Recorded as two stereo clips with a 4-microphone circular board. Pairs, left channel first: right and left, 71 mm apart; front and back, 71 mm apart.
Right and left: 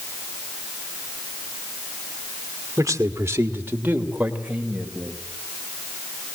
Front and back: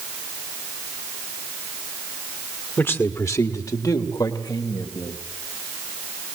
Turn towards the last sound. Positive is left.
turn(degrees=10)